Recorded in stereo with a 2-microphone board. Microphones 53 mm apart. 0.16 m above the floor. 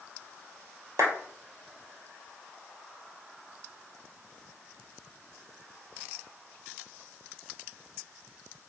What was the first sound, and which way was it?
A clap, 70° right (ahead or behind).